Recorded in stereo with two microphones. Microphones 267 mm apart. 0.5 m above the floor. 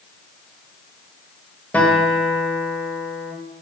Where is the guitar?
5° left (ahead or behind), 2.5 m.